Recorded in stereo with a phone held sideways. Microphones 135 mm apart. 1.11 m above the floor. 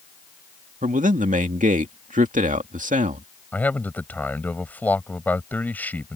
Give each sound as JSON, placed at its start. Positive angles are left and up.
{"t": 0.8, "sound": "a man speaking", "side_deg": -75}
{"t": 3.5, "sound": "a man speaking", "side_deg": 10}